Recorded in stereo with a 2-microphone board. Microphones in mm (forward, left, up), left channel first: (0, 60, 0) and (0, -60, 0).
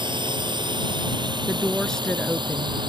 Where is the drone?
40° right (ahead or behind).